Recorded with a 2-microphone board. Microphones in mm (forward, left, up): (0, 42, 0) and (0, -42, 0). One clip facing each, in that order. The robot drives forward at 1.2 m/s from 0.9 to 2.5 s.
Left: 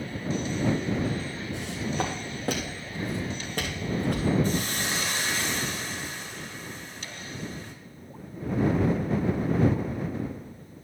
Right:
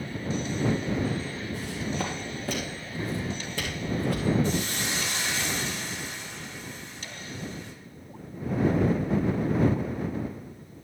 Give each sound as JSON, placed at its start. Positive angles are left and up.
{"t": 1.5, "sound": "footsteps", "side_deg": 75, "distance_m": 3.0}
{"t": 4.4, "sound": "a hiss", "side_deg": 50, "distance_m": 3.0}